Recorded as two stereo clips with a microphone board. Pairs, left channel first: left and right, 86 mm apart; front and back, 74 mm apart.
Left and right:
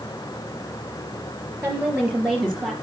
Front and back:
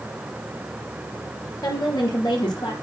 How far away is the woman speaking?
About 4 m.